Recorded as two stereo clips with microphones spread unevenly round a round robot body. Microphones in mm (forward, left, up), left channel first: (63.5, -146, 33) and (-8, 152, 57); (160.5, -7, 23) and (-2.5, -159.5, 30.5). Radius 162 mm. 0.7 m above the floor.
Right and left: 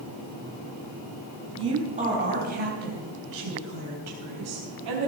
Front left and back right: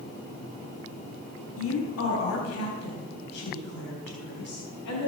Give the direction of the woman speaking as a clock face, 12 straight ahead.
11 o'clock.